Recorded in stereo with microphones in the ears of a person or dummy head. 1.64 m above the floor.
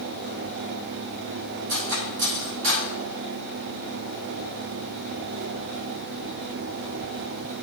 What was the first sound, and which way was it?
Cutlery clinking, 70° right (ahead or behind).